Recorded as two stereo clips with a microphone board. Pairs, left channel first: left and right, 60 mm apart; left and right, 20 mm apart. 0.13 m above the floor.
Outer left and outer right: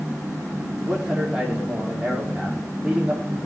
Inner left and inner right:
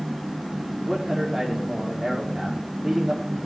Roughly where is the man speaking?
Centre.